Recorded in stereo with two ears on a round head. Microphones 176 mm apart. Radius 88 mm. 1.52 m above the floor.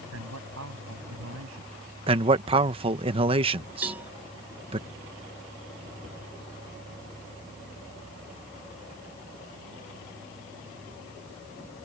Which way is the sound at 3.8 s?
10° right (ahead or behind).